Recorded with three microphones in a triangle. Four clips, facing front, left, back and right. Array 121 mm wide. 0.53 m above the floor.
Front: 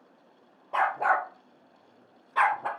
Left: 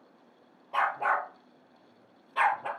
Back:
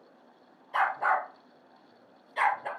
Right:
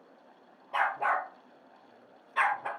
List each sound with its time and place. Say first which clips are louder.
0.7 s a dog barking: left 1 dB, front 2 dB; 5° left, 4 m